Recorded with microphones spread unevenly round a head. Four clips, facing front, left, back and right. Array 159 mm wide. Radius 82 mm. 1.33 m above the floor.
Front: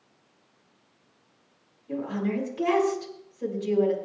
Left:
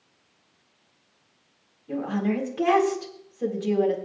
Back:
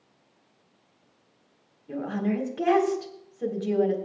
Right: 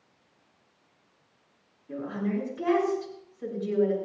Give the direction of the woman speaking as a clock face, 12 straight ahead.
7 o'clock.